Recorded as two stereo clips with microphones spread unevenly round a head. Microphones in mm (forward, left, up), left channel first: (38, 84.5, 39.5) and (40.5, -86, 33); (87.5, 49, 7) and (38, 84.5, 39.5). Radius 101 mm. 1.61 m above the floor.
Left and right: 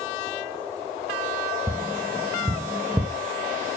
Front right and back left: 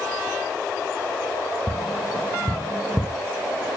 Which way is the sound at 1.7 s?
160° right.